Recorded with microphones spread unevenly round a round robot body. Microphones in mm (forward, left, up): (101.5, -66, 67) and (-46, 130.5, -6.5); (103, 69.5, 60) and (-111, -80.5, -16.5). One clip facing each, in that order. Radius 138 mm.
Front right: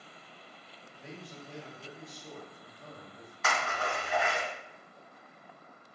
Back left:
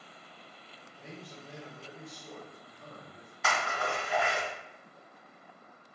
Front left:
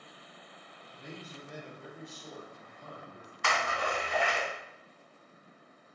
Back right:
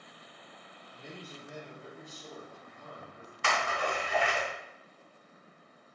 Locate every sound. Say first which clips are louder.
0.9 s a man speaking: front right 1 dB, front left 1 dB; 170° right, 1.3 m; by 3.3 s 95° left, 1.6 m
3.4 s a splash: back left 1 dB, back right 1 dB; 160° right, 1.6 m